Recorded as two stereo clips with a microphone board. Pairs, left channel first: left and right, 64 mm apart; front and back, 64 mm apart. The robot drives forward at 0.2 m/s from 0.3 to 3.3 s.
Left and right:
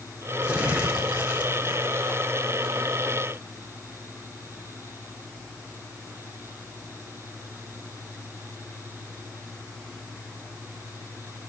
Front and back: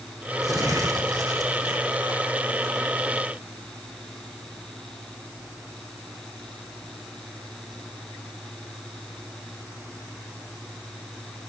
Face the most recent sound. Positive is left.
turn(degrees=-165)